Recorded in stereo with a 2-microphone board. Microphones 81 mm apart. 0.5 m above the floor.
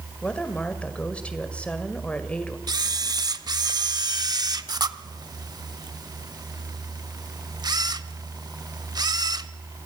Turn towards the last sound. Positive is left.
turn(degrees=-55)  # may be behind; listen again after turning